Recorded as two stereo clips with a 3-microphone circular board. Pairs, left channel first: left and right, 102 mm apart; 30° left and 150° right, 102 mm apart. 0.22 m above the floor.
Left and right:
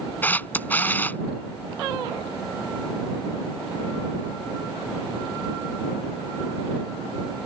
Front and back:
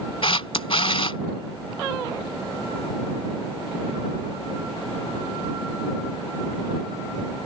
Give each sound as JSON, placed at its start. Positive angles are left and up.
{"t": 0.2, "sound": "a camera shutter", "azimuth_deg": 25}